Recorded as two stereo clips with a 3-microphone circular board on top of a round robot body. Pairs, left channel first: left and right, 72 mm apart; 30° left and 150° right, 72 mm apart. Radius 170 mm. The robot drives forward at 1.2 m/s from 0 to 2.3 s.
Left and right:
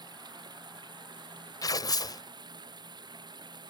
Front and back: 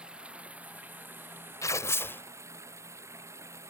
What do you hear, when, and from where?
0.0 s running water: 75° right; by 3.7 s 100° right
1.6 s tearing paper: 70° left; by 2.2 s 90° left